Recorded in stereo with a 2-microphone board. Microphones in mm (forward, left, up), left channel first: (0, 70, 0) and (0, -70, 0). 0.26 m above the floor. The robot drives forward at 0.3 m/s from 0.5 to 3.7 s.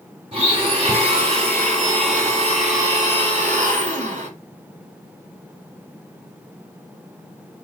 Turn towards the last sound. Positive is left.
turn(degrees=-60)  # may be behind; listen again after turning